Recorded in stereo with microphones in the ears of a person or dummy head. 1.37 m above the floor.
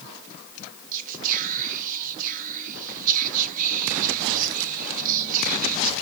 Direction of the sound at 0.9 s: 45° right (ahead or behind).